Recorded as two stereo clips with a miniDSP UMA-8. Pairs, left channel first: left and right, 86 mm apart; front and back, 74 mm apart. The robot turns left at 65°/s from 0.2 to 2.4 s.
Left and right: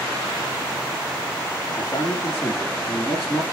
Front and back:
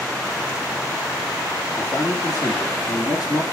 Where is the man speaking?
65° left, 3.5 m; by 3.4 s 25° left, 3.5 m.